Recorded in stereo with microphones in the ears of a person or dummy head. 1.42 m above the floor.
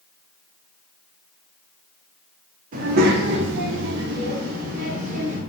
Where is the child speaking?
50° right (ahead or behind), 0.7 m; by 5.4 s 40° right (ahead or behind), 1.4 m.